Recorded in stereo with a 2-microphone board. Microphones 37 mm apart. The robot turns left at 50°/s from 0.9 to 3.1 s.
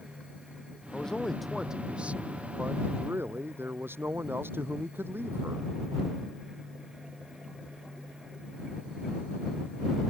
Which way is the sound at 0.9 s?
25° left.